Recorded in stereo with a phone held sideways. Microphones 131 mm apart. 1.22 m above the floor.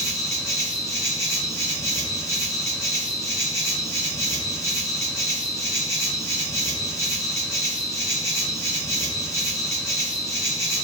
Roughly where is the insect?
Left.